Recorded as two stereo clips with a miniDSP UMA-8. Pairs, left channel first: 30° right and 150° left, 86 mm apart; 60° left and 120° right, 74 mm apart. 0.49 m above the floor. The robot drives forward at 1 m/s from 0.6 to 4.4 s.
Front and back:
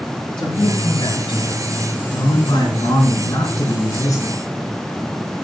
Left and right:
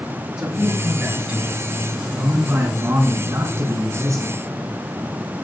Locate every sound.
0.4 s a man speaking: 45° right, 7 m; by 4.4 s 80° right, 5 m